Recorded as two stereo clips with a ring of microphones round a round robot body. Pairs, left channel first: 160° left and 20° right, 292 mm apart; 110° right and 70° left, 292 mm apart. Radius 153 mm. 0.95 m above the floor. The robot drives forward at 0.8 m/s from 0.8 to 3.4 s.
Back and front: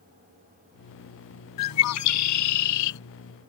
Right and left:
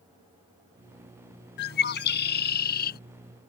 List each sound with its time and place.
1.6 s a bird: 165° right; by 3.0 s 170° right